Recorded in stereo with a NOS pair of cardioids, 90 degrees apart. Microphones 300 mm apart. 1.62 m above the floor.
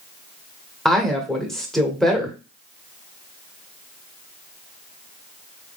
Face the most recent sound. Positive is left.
turn(degrees=0)